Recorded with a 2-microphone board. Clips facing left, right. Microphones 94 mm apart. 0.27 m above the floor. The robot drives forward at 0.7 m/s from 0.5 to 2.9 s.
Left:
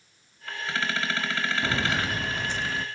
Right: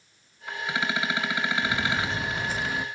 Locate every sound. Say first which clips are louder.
1.6 s footsteps: even; 35° left (ahead or behind), 0.5 m; by 2.9 s 15° right (ahead or behind), 0.9 m